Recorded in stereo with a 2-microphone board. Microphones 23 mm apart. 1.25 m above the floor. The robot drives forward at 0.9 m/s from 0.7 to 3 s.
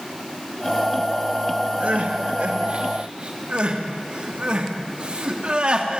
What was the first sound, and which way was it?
Crying, 60° right (ahead or behind).